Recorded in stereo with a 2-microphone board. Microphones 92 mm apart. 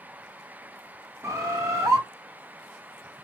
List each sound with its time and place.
1.2 s a bird: 30° right (ahead or behind), 0.7 m